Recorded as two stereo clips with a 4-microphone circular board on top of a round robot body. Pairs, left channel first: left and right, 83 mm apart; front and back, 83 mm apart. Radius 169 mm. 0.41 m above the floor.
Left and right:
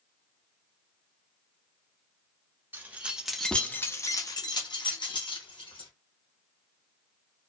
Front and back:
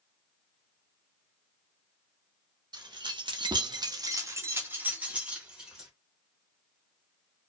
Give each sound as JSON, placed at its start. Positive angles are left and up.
{"t": 2.7, "sound": "keys jangling", "azimuth_deg": -155, "distance_m": 0.8}